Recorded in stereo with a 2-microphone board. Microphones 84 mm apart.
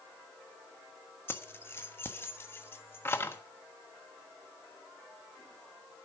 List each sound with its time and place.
1.3 s keys jangling: 30° left (ahead or behind), 1.2 m